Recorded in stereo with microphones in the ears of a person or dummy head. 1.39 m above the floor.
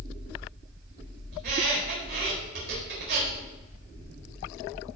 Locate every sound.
1.3 s a squeak: 55° right (ahead or behind), 4.5 m